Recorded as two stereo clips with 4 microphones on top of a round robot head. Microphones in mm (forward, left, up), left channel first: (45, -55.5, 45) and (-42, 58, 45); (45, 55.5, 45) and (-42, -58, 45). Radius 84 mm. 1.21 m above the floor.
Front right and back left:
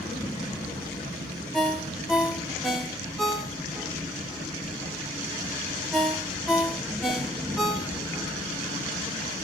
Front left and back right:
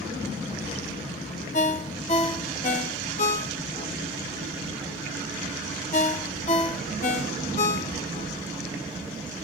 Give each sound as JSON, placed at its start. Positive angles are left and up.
{"t": 1.5, "sound": "a ringtone", "azimuth_deg": 35, "distance_m": 0.8}